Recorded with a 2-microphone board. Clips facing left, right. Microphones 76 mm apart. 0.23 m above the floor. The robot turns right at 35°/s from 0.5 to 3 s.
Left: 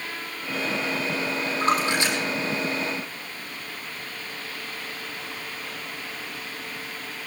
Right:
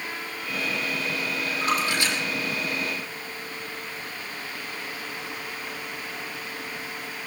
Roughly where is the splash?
Left.